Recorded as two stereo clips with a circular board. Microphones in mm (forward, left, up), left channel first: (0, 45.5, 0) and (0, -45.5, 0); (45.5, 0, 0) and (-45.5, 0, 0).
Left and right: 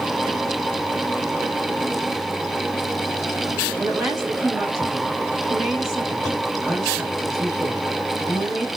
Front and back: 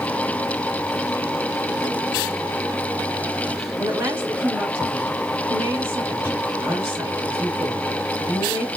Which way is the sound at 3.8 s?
175° right.